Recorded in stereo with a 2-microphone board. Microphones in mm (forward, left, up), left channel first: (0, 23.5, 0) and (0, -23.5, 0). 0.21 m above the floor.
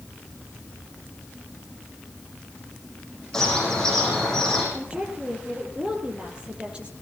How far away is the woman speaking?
About 5.5 m.